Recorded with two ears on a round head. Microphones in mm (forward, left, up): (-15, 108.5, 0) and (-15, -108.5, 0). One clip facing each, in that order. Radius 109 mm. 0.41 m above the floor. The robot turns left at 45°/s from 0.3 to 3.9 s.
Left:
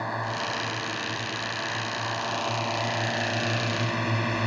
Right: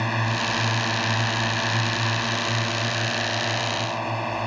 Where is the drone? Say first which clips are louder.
Right 5 dB; 50° right; by 4.5 s 150° left.